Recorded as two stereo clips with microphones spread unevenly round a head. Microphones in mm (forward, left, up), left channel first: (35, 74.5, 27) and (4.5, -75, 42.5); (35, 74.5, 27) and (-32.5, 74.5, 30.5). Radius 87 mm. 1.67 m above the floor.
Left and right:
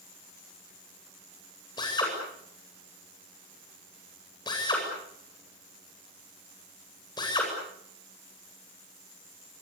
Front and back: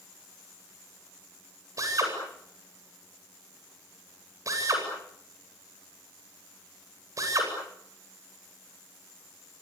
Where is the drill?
145° left, 8.5 m.